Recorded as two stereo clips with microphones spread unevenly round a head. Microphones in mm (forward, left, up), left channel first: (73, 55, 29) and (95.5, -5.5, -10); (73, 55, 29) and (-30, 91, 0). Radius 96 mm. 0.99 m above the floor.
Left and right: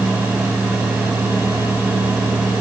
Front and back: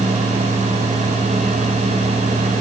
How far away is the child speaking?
I don't hear a child speaking.